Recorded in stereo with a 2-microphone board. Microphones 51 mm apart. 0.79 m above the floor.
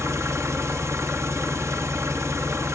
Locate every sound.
0.0 s an engine running: 60° right (ahead or behind), 1.1 m